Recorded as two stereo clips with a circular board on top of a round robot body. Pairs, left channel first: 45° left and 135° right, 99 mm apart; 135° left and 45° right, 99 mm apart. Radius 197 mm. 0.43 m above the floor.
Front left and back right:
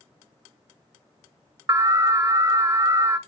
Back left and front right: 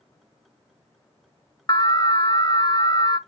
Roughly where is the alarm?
Behind.